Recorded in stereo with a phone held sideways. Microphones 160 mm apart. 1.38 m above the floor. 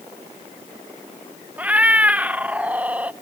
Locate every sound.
1.6 s a cat meowing: 10° right (ahead or behind), 0.6 m